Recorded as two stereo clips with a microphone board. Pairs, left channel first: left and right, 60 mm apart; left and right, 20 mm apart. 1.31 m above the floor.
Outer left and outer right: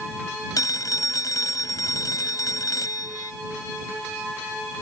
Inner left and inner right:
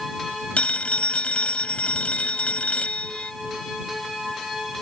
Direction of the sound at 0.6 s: 85° left.